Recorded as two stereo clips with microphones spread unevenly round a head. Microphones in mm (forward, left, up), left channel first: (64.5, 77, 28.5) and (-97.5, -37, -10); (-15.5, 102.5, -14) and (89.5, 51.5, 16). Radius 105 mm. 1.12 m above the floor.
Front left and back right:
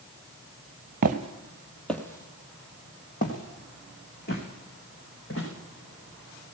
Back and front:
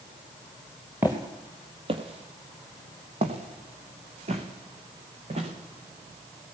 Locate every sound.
1.0 s footsteps: 90° right, 1.8 m; by 5.5 s straight ahead, 7 m